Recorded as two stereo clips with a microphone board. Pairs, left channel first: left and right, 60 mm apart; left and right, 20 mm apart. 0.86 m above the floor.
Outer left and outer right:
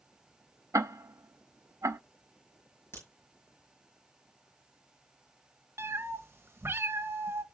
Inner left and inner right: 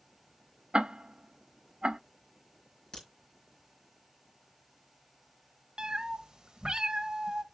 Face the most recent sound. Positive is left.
turn(degrees=-45)  # may be behind; listen again after turning